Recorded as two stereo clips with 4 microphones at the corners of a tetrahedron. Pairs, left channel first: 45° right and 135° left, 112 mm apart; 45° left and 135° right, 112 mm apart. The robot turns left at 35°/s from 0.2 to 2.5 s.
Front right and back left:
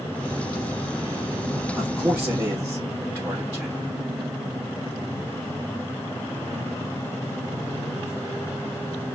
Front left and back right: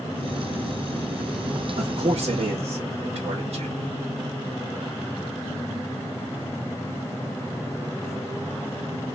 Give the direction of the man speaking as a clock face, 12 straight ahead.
4 o'clock.